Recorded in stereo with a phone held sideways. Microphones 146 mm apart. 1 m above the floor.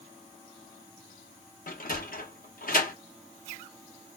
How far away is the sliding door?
About 0.8 m.